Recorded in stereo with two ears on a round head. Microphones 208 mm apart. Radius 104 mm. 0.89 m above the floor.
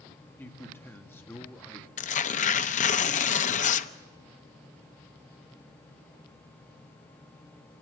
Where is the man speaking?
10° left (ahead or behind), 1.4 m.